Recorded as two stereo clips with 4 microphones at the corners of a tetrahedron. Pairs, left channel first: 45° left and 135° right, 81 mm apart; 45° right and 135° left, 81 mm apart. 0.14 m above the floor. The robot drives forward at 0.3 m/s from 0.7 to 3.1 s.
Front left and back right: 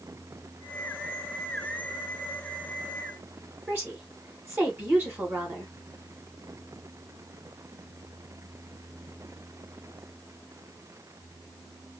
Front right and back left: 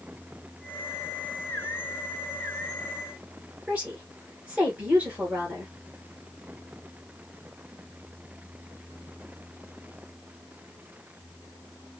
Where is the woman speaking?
170° right, 1.5 m.